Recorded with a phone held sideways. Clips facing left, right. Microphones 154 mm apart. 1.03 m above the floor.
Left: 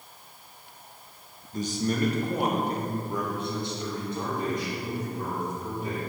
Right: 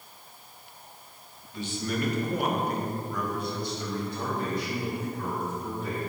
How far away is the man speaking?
About 0.8 m.